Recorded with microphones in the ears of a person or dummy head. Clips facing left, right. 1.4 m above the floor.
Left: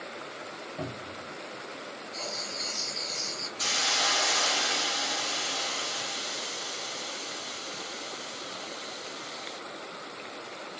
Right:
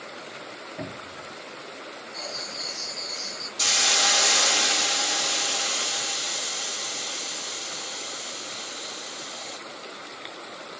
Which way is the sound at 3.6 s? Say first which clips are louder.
Right 4 dB; 50° right (ahead or behind).